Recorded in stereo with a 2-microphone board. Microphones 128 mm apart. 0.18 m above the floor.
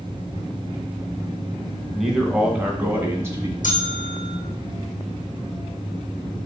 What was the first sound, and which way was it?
A man speaking, centre (ahead or behind).